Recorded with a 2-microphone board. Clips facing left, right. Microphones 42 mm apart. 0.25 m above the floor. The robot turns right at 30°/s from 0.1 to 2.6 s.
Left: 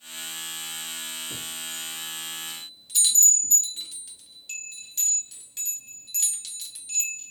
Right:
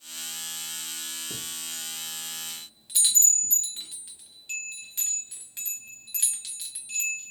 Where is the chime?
35° right (ahead or behind), 1.2 m; by 7.3 s 20° right (ahead or behind), 1.2 m.